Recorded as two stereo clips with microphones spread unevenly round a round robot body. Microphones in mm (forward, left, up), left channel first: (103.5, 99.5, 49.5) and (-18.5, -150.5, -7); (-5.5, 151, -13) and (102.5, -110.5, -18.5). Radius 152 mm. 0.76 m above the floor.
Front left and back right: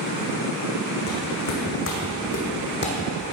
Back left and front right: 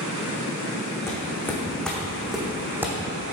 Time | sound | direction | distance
1.1 | footsteps | 30° left | 3.5 m